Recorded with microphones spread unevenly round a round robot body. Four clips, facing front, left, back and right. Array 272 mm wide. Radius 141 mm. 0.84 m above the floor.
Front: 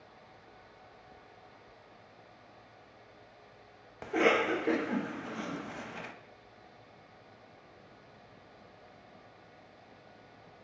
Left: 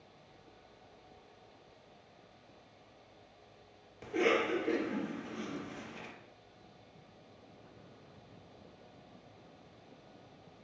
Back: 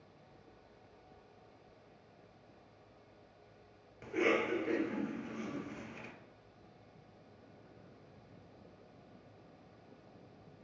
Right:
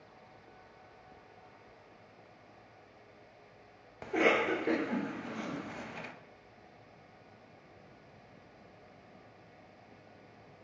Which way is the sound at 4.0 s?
30° right.